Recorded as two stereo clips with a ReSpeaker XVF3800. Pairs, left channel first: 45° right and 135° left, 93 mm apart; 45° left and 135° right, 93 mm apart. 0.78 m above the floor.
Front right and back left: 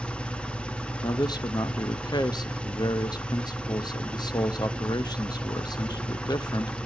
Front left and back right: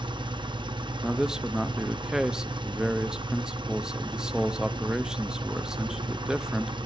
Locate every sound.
0.0 s an engine running: 125° right, 0.9 m
1.0 s a man speaking: 55° right, 0.6 m